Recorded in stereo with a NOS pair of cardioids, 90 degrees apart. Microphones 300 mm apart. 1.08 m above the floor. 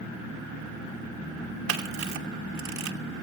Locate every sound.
1.7 s a camera shutter: 65° right, 2.5 m